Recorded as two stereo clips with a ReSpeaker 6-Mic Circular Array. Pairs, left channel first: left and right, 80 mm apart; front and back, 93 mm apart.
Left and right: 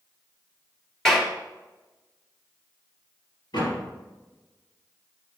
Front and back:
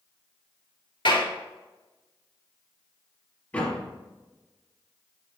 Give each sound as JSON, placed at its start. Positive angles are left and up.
{"t": 1.1, "sound": "a clap", "azimuth_deg": 10, "distance_m": 3.0}
{"t": 3.5, "sound": "a door slam", "azimuth_deg": 75, "distance_m": 4.0}